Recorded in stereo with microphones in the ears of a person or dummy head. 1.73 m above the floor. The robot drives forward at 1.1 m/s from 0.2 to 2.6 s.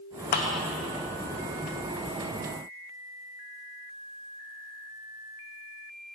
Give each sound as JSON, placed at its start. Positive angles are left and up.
{"t": 0.3, "sound": "a clap", "side_deg": 45, "distance_m": 1.0}